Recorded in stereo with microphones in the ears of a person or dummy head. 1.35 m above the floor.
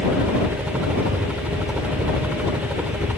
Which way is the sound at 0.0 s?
10° right (ahead or behind).